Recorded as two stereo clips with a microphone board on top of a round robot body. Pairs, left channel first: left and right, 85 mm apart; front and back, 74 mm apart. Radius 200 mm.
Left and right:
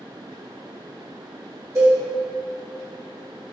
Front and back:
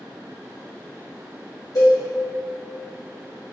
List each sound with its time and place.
1.8 s a cowbell: 35° right, 1.4 m